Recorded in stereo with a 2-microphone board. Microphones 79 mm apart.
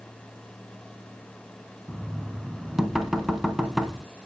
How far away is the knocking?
About 1.0 m.